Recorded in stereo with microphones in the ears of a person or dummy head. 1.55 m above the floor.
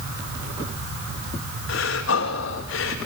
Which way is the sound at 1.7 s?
70° left (ahead or behind).